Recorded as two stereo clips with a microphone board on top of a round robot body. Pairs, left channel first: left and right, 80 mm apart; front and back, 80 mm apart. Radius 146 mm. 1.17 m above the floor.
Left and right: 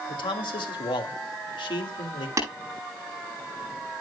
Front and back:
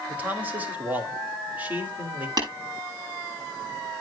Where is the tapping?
145° right, 10 m.